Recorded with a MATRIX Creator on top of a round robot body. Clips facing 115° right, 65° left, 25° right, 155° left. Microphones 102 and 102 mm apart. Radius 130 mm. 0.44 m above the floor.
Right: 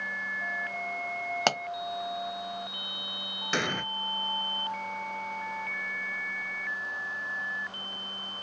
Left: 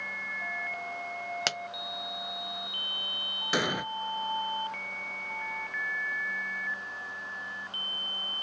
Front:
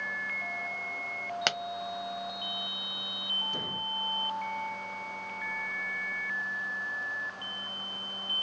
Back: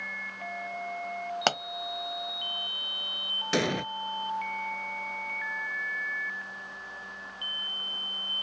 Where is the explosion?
150° left.